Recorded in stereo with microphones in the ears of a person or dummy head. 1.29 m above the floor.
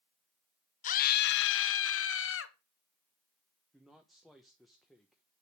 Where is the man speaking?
5° left (ahead or behind), 1.2 m.